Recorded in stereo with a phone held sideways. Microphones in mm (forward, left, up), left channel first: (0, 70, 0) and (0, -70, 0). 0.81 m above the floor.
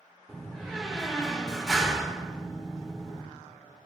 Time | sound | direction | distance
0.3 | a door slam | centre (ahead or behind) | 2 m